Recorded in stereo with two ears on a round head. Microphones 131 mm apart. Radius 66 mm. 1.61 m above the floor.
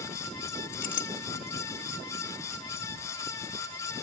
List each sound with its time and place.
0.7 s a clink: 60° left (ahead or behind), 1.6 m